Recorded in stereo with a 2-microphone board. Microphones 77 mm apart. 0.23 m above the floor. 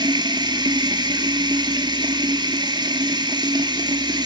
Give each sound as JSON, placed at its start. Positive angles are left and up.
{"t": 0.0, "sound": "running water", "side_deg": -70, "distance_m": 1.8}